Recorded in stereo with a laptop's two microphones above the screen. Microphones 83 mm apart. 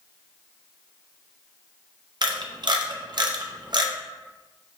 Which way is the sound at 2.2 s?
60° right (ahead or behind).